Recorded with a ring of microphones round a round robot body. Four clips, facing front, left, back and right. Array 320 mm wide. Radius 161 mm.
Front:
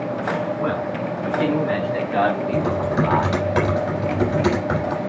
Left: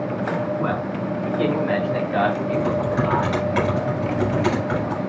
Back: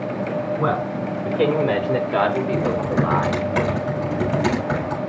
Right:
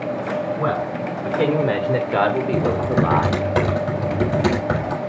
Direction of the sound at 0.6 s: 145° right.